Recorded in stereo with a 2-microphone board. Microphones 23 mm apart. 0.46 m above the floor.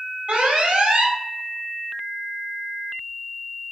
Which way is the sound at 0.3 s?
60° right (ahead or behind).